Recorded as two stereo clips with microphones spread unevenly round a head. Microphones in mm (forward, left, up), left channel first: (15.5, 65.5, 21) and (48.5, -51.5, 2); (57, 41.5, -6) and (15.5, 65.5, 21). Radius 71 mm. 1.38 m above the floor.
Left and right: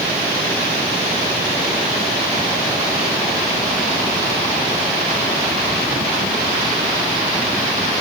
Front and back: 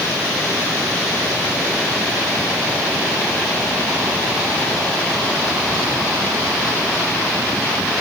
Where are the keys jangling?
I don't hear keys jangling.